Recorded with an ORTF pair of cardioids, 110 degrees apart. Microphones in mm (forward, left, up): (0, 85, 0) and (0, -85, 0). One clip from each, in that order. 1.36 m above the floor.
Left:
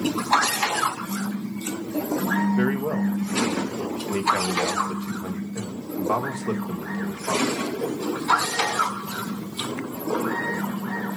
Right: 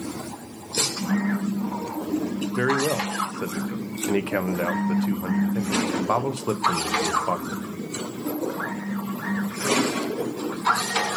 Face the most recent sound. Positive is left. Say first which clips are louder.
# right 3 dB
turn(degrees=-25)